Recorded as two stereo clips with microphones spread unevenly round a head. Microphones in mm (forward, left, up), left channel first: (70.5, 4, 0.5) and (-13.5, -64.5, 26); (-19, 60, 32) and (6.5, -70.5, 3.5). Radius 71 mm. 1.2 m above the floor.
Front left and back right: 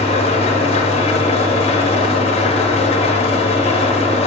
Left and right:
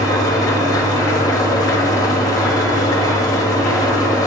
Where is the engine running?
30° left, 0.8 m.